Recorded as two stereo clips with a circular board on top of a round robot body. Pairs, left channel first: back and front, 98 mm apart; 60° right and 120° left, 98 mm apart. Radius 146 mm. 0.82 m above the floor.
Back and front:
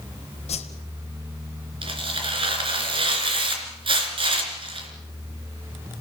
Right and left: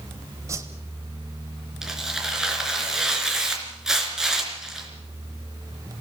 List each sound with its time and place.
0.5 s a whoosh: straight behind, 0.8 m
1.8 s tearing paper: 35° left, 3.5 m